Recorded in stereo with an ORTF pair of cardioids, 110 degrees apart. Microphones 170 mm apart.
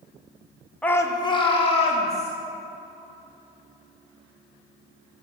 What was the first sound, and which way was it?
A shout, 5° left.